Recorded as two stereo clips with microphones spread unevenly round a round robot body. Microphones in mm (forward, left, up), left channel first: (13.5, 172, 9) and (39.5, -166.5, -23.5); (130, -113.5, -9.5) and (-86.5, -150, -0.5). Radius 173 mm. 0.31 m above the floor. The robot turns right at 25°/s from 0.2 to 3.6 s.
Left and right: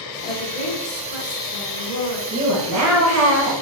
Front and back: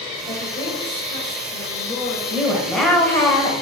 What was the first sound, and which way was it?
A woman speaking, 30° left.